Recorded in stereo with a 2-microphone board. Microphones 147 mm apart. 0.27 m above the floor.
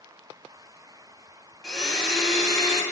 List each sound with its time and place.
1.6 s a blender: centre (ahead or behind), 1.4 m